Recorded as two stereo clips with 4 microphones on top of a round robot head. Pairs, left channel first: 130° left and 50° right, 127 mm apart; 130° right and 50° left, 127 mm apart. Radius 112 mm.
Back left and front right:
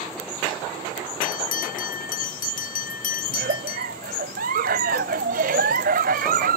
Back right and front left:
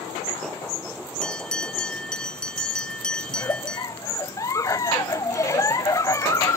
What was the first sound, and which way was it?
A bell, 145° left.